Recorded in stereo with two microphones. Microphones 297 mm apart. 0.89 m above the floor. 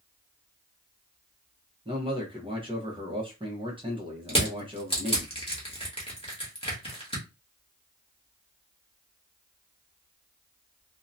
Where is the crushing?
20° left (ahead or behind), 1.1 m.